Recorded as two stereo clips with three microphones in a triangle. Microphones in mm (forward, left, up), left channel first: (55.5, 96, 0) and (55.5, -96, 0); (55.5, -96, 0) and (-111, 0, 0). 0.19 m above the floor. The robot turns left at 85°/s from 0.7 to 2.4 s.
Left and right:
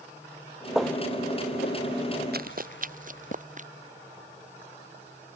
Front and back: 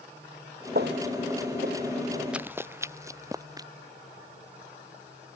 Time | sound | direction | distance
0.8 | footsteps | 175° right | ?
2.3 | running footsteps | 125° right | ?